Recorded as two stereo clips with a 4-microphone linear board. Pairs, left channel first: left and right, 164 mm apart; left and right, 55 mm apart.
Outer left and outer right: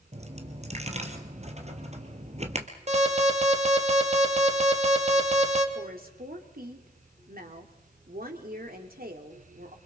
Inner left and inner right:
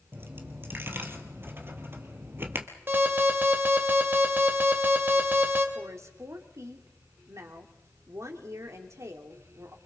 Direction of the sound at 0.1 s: 40° right (ahead or behind).